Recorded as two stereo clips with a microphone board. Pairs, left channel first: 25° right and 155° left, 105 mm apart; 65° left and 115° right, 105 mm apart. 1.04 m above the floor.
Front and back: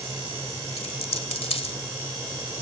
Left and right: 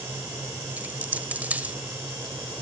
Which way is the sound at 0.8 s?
40° right.